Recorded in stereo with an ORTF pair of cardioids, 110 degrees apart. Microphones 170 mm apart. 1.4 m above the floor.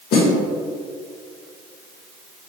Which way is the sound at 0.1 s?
70° left.